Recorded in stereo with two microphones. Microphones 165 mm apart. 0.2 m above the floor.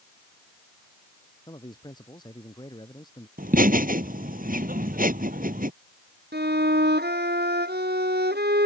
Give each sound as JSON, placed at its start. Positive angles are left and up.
{"t": 1.5, "sound": "a man speaking", "side_deg": 25}
{"t": 3.4, "sound": "laughter", "side_deg": -55}
{"t": 6.3, "sound": "a violin", "side_deg": -80}